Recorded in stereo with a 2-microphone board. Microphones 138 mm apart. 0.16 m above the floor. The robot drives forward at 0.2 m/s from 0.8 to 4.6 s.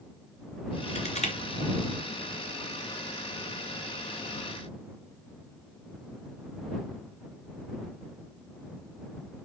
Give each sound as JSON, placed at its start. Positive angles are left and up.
{"t": 0.9, "sound": "crushing", "side_deg": 55, "distance_m": 2.5}